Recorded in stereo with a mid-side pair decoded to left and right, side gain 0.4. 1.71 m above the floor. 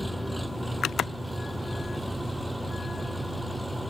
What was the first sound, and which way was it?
An engine running, 5° right.